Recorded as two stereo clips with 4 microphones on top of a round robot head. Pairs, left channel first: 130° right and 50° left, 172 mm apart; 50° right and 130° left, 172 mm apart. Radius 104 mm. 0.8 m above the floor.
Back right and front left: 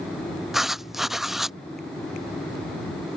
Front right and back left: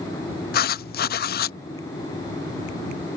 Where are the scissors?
I don't hear scissors.